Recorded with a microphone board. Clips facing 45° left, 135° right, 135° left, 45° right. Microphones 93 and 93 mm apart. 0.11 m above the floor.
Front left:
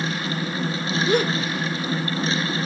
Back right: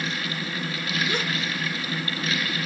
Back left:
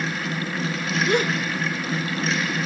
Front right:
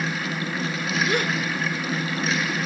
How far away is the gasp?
About 3 m.